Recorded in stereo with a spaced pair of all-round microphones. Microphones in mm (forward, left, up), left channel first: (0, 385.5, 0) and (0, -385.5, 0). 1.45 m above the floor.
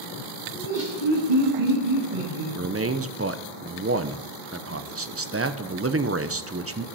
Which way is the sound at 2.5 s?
20° right (ahead or behind).